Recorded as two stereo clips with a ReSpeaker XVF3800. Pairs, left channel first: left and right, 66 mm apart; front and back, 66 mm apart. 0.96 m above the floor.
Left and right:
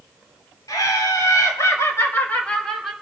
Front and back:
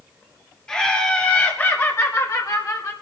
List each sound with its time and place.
0.7 s laughter: 75° left, 3 m; by 2.9 s 5° right, 1.8 m